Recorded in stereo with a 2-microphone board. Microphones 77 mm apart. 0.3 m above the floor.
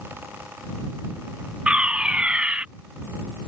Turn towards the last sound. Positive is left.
turn(degrees=-15)  # may be behind; listen again after turning